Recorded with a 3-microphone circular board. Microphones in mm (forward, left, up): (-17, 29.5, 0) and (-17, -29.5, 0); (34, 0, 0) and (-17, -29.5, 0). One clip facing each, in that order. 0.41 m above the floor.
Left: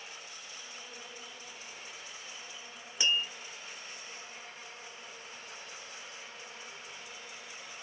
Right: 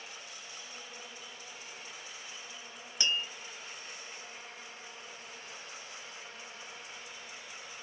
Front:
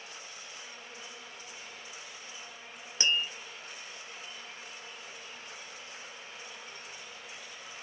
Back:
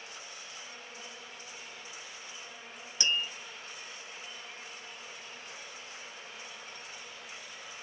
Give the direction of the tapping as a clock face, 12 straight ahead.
11 o'clock.